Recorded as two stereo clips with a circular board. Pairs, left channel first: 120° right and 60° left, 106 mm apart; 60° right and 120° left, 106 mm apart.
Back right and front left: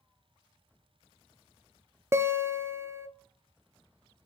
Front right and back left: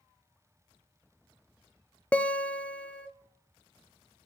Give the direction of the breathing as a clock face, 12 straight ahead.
No breathing in this recording.